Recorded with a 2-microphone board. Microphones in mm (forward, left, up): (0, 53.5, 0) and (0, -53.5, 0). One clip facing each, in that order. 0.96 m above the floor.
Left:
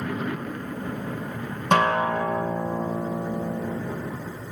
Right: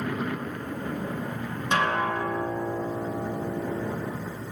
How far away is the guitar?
About 1.5 m.